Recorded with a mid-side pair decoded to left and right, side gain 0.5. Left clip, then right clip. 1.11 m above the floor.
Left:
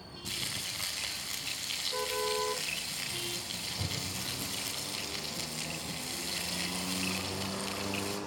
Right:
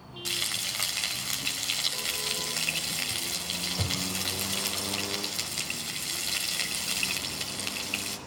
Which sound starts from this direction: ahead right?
Frying, at 0.2 s.